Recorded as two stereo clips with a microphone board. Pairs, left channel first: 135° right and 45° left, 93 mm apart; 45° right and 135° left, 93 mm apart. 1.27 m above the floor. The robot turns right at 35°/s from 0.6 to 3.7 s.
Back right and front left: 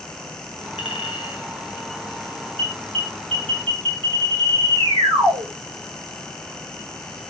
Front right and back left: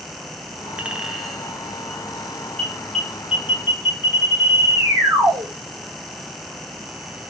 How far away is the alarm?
About 3 m.